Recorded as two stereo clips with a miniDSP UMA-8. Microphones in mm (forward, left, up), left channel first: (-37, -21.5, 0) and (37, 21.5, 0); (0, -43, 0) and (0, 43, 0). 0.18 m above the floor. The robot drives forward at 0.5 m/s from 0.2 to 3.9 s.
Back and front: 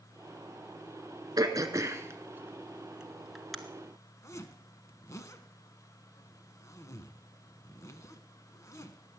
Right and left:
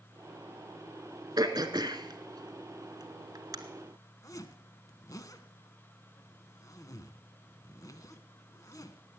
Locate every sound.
1.4 s throat clearing: 65° left, 1.2 m; by 3.6 s 120° left, 1.3 m
4.2 s a zipper: 115° right, 1.0 m